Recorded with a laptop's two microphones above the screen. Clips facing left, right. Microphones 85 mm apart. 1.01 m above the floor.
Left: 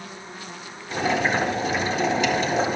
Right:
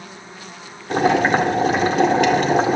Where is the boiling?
60° right (ahead or behind), 1.9 m.